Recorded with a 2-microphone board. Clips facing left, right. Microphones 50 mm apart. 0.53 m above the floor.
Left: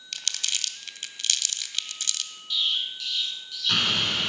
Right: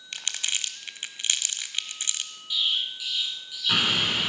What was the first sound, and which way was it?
Crumpling, 20° right (ahead or behind).